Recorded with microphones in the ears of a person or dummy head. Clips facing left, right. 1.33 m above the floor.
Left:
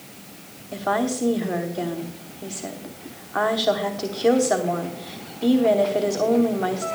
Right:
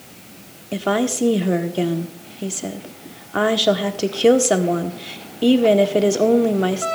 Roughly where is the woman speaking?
Right.